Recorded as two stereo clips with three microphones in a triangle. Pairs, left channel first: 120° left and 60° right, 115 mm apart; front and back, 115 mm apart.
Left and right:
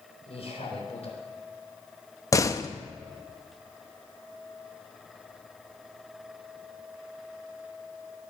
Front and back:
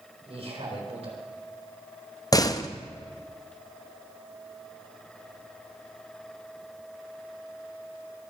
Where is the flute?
No flute in this recording.